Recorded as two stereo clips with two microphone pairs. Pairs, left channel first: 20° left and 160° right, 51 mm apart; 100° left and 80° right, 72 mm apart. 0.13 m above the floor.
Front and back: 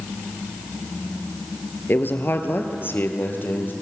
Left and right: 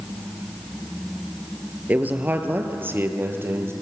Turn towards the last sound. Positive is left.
turn(degrees=-25)